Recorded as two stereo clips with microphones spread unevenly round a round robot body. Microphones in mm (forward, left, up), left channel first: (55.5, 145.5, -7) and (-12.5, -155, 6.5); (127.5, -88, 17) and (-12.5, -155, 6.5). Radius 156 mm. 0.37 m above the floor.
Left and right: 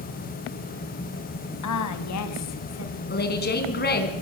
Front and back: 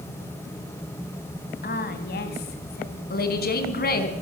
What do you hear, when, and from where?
1.6 s a woman speaking: 55° left, 3 m; by 3.0 s 35° left, 4 m
3.1 s a woman speaking: 20° left, 4 m